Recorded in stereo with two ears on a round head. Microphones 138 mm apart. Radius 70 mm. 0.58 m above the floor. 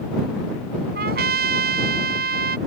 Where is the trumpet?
70° right (ahead or behind).